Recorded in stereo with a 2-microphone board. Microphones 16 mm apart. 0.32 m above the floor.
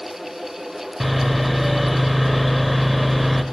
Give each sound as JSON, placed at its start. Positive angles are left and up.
{"t": 1.0, "sound": "sawing", "side_deg": 0, "distance_m": 0.6}